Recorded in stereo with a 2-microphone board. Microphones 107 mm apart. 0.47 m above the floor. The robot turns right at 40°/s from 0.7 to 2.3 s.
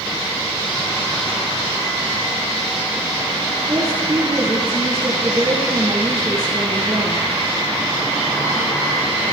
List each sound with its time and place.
3.7 s a woman speaking: 30° right (ahead or behind), 9 m